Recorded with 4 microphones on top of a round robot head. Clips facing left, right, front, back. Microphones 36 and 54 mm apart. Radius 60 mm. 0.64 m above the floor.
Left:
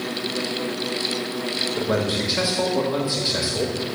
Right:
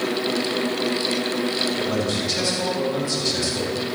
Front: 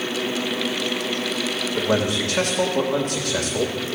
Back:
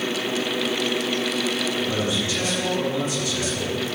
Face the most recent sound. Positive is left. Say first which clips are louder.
# left 1 dB, front 3 dB
turn(degrees=25)